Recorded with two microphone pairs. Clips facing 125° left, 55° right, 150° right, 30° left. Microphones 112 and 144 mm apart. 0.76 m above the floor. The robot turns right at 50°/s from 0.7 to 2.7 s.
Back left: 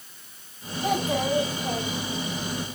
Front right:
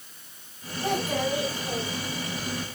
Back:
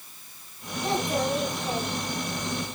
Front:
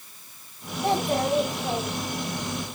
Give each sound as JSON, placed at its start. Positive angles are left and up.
{"t": 0.8, "sound": "a child speaking", "azimuth_deg": 35, "distance_m": 4.5}